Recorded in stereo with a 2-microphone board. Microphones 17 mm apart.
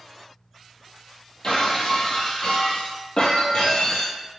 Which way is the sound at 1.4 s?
50° left (ahead or behind).